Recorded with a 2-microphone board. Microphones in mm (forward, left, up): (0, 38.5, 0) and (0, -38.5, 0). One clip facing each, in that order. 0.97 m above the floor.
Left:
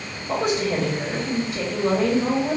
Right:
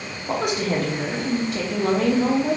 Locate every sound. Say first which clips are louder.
0.3 s a woman speaking: left 1 dB; 65° right (ahead or behind), 1.0 m